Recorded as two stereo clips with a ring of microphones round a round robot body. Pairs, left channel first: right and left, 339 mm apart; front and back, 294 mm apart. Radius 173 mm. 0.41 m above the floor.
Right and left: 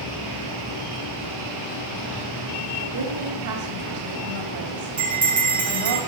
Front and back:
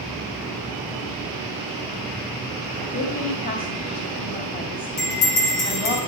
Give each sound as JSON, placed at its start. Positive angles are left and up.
{"t": 2.8, "sound": "a woman speaking", "azimuth_deg": 60, "distance_m": 2.5}
{"t": 5.0, "sound": "a bell", "azimuth_deg": 5, "distance_m": 6.0}